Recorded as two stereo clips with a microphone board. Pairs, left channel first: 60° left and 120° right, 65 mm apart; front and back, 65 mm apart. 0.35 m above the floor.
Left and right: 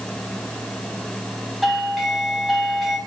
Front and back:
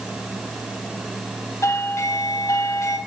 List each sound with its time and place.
1.6 s a doorbell: 30° right, 3.5 m